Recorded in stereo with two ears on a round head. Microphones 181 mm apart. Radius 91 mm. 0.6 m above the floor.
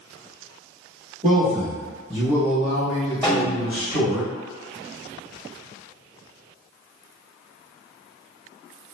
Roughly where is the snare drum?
Centre.